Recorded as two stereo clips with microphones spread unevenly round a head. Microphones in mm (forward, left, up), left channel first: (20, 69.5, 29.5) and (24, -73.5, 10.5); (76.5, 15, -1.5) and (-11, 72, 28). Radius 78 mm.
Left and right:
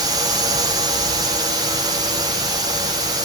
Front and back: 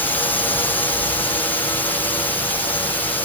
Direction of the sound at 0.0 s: 60° right.